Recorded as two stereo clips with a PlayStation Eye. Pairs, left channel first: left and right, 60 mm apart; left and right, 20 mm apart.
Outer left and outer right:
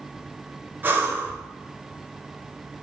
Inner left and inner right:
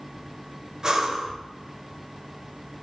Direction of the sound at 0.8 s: 35° right (ahead or behind).